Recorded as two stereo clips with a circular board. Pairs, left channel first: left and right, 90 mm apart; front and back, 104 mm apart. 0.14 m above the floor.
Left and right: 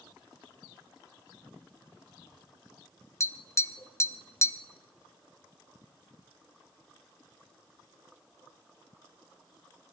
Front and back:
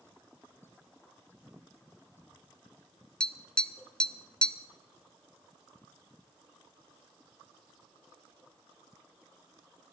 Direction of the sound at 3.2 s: 75° left.